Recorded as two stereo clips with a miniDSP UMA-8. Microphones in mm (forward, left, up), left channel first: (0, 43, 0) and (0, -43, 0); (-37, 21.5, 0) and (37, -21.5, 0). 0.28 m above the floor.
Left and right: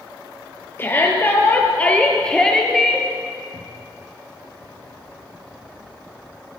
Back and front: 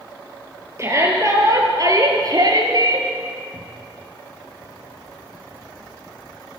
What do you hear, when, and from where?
0.8 s a shout: 25° left, 5 m; by 3.1 s straight ahead, 4 m
3.5 s a cupboard door: 125° left, 4 m